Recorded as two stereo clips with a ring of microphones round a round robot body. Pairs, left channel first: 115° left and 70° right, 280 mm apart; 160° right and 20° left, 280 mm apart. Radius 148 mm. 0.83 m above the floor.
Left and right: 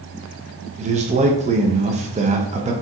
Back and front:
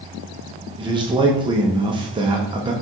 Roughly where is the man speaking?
Ahead right.